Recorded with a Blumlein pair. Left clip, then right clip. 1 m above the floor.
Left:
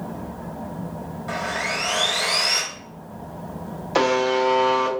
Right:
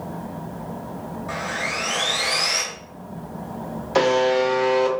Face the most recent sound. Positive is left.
turn(degrees=5)